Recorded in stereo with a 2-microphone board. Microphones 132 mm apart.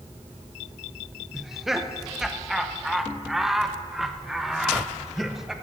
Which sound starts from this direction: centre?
Laughter, at 1.3 s.